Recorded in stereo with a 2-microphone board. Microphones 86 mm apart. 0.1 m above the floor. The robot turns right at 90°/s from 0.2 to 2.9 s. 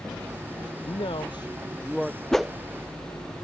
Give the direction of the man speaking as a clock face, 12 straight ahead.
9 o'clock.